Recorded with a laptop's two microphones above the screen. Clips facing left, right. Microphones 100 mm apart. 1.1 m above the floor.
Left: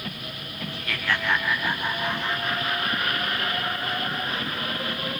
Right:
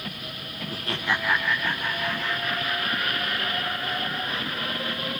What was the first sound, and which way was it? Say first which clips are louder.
Laughter: right 1 dB; 40° right (ahead or behind).